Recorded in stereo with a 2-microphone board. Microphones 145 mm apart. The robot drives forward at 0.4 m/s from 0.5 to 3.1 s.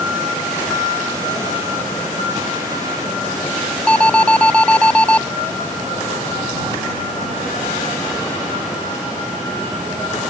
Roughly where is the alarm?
Centre.